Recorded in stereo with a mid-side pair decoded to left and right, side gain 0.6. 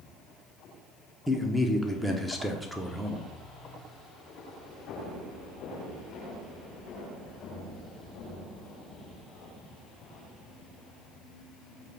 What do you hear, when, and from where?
1.3 s a man speaking: 5° right, 0.8 m